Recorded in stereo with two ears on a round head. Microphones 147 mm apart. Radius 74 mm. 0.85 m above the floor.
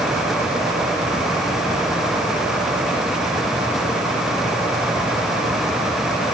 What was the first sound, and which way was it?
Only background noise.